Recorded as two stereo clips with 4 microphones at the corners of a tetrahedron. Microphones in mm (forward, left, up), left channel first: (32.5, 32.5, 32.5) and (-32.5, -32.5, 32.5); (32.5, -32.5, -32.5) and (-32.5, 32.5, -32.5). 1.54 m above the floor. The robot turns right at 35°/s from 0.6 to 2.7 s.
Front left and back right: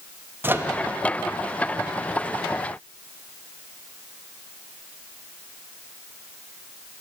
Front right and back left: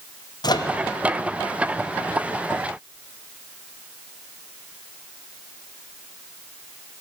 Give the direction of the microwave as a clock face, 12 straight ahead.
2 o'clock.